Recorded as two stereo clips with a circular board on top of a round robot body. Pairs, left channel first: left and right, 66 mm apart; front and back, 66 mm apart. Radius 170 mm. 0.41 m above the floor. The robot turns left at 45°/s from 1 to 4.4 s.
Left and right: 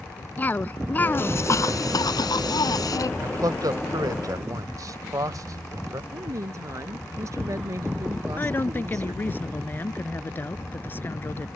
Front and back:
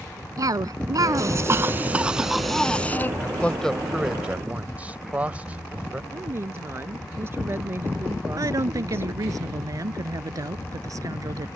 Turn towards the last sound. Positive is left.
turn(degrees=150)